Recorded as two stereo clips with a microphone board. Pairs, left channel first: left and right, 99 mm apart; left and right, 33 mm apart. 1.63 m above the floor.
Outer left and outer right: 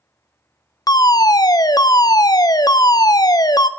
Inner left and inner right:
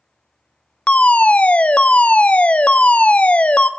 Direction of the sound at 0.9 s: 40° left (ahead or behind).